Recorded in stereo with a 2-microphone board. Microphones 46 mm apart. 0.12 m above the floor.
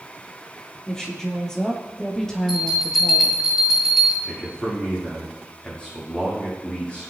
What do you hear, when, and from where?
0.9 s a woman speaking: 15° left (ahead or behind), 4 m; by 3.4 s 10° left (ahead or behind), 2.5 m
2.5 s a bell: 10° left (ahead or behind), 6.5 m
4.2 s a man speaking: 25° left (ahead or behind), 6 m